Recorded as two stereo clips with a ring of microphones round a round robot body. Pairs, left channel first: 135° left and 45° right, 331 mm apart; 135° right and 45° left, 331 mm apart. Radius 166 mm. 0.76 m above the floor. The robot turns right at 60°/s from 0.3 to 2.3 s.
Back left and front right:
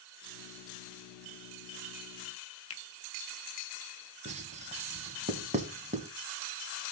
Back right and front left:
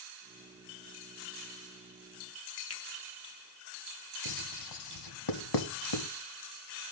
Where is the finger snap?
Straight behind, 1.1 m.